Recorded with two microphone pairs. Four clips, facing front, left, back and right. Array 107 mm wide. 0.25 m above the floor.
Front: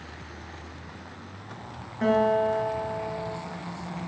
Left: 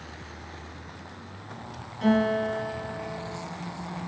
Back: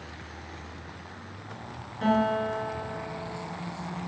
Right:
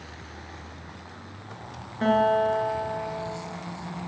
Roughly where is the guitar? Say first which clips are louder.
Right 3 dB, front 3 dB; ahead right.